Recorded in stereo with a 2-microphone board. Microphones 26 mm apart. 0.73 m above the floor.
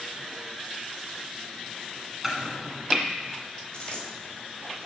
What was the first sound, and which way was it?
Chopping, 10° right (ahead or behind).